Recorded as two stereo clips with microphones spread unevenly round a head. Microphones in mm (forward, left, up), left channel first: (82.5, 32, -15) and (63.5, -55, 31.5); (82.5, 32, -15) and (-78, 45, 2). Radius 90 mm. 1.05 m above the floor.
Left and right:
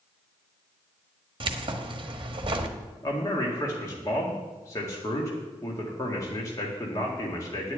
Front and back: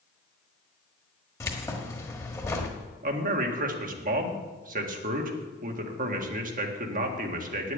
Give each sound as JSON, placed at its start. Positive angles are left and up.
{"t": 1.4, "sound": "keys jangling", "azimuth_deg": -80, "distance_m": 1.3}
{"t": 3.0, "sound": "a man speaking", "azimuth_deg": 140, "distance_m": 1.9}